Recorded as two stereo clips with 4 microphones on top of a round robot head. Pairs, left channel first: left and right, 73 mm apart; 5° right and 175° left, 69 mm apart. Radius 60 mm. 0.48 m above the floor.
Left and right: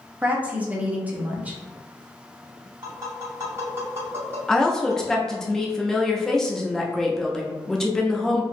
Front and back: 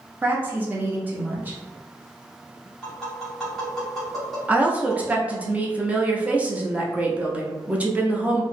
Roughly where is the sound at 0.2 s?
Behind right.